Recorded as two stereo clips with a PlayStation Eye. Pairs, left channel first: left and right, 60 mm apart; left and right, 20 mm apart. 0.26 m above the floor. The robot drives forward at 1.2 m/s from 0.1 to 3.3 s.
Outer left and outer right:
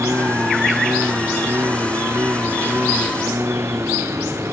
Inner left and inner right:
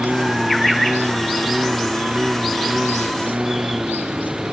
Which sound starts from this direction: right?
A lawn mower, at 0.0 s.